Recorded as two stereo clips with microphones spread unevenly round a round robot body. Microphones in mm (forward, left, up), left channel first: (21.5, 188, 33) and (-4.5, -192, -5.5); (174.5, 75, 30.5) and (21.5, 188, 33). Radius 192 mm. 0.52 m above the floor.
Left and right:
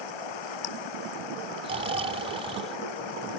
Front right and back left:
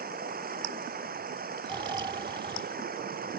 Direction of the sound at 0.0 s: 105° left.